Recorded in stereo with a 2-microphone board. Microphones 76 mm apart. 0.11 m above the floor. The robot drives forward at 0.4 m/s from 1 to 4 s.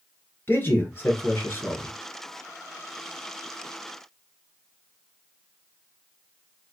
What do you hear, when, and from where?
0.5 s a man speaking: 30° left (ahead or behind), 1.4 m